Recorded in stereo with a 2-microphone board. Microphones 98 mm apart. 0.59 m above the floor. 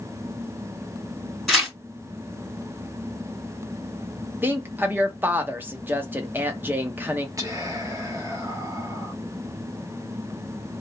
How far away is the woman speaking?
About 0.6 m.